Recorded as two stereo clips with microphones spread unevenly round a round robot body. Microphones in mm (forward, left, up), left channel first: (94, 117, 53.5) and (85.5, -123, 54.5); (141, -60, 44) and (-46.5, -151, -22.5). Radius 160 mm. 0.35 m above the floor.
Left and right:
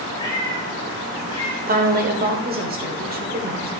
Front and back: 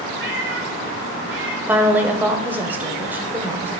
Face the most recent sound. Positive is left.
turn(degrees=-105)